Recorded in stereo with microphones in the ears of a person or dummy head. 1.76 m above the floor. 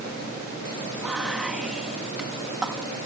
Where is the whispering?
10° right (ahead or behind).